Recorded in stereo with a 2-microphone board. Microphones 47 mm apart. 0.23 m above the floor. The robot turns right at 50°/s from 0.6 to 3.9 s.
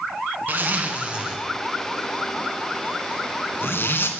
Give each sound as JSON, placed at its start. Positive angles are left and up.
{"t": 0.5, "sound": "a zipper", "side_deg": -45, "distance_m": 2.5}